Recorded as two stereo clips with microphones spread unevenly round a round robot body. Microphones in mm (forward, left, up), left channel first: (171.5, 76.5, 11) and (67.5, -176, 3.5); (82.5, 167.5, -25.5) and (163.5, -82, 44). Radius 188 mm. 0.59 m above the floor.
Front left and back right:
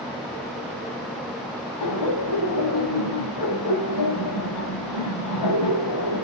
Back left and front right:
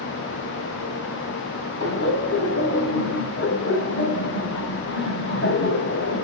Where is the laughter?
70° left, 5 m.